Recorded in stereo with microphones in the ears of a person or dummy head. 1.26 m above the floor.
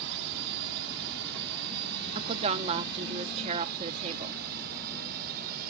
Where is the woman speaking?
30° right (ahead or behind).